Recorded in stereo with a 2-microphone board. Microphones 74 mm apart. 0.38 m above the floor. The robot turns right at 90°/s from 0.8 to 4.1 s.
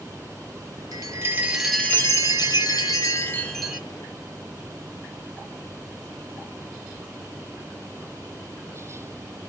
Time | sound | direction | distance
0.9 | a chime | 70° right | 0.6 m